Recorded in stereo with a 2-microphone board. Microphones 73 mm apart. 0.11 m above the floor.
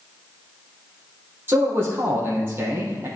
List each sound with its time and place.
1.5 s a man speaking: 30° right (ahead or behind), 3 m